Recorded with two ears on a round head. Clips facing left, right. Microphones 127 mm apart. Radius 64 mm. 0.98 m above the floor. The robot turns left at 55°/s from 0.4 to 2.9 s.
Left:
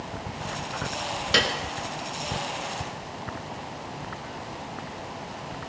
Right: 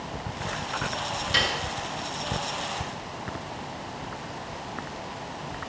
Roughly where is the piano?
Left.